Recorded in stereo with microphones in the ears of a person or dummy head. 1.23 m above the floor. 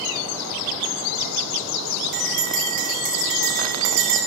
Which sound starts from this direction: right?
A bell, at 2.1 s.